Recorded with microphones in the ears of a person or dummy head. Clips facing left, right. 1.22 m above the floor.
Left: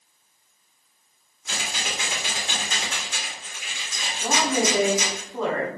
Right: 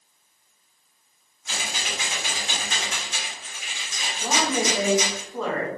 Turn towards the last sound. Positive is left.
turn(degrees=5)  # may be behind; listen again after turning